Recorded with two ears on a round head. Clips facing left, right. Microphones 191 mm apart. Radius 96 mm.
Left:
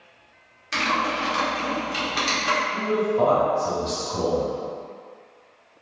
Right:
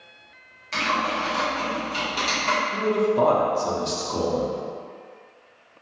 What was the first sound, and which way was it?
Typing on a keyboard, 15° left (ahead or behind).